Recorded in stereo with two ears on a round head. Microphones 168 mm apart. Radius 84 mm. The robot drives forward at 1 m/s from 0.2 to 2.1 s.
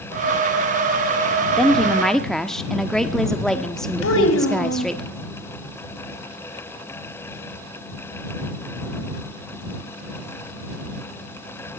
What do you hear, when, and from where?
1.6 s a woman speaking: centre (ahead or behind), 1.4 m; by 5.0 s 5° left (ahead or behind), 1.1 m
4.0 s a child speaking: 75° left (ahead or behind), 3 m